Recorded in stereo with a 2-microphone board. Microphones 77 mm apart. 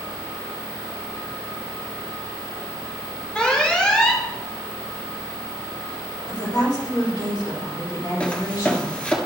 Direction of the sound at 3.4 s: 15° left (ahead or behind).